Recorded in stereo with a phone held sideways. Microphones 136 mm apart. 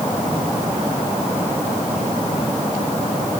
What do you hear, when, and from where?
Only background noise.